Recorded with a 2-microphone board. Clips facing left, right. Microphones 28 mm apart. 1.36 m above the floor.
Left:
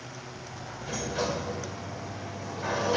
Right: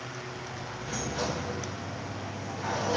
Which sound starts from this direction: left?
A sliding door, at 0.8 s.